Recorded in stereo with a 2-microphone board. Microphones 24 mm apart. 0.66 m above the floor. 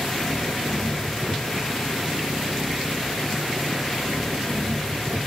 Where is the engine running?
40° right (ahead or behind).